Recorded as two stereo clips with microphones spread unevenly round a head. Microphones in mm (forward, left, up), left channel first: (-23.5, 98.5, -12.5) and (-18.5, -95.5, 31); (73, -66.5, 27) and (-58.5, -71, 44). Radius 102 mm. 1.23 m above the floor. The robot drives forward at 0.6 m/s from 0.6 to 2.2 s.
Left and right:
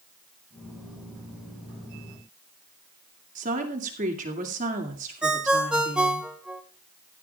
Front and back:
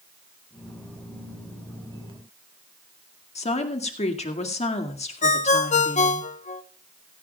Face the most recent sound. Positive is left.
turn(degrees=-15)